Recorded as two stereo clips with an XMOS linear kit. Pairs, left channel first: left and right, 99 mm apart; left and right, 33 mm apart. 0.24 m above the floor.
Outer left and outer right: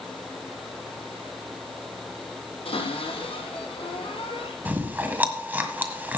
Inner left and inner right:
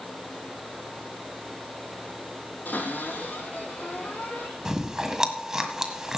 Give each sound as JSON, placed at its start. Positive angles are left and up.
{"t": 2.6, "sound": "a cupboard door", "side_deg": 75, "distance_m": 7.0}
{"t": 4.7, "sound": "chewing", "side_deg": -20, "distance_m": 1.6}